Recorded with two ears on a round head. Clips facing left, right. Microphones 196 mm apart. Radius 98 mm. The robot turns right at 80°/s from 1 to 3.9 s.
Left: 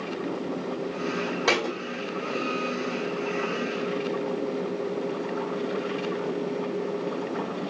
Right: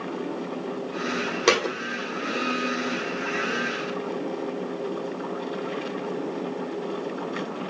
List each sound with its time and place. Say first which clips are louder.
1.5 s a thud: right 5 dB; 35° right (ahead or behind), 1.9 m; by 1.8 s 20° right (ahead or behind), 1.9 m